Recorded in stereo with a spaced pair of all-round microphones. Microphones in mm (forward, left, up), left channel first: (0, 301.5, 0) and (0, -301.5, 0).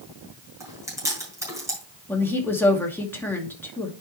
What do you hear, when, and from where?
0.6 s chewing: 5° right (ahead or behind), 4.5 m
2.1 s a woman speaking: 5° left (ahead or behind), 2 m